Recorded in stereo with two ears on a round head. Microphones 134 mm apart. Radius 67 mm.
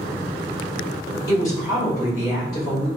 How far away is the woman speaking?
About 1.8 m.